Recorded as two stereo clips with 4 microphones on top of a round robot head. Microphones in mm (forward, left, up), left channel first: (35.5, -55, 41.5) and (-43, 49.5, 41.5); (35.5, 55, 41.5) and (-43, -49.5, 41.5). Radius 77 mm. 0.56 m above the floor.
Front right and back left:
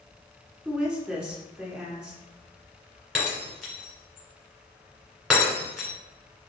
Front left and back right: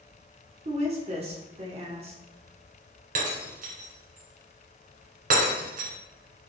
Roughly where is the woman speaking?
Behind right.